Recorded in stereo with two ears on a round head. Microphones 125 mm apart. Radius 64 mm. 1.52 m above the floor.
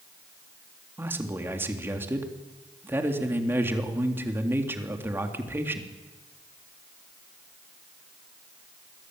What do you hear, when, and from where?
1.0 s a man speaking: 15° right (ahead or behind), 3.5 m